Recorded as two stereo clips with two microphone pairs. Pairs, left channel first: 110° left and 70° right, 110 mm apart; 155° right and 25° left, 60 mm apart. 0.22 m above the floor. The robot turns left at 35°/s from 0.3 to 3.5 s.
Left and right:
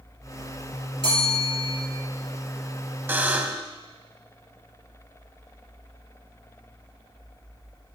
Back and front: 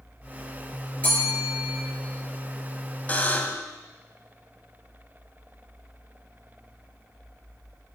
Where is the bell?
140° left, 4 m; by 1.8 s 115° left, 4 m.